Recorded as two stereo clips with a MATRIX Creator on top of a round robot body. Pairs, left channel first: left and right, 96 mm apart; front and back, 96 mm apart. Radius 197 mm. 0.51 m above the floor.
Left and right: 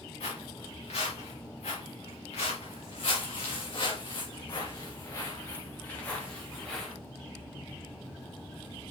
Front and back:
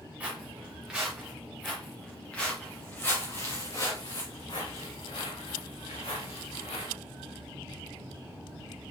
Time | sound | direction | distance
0.2 | footsteps | 105° left | 4 m